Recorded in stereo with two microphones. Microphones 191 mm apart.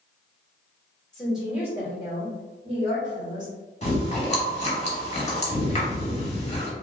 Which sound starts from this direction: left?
Chewing, at 3.8 s.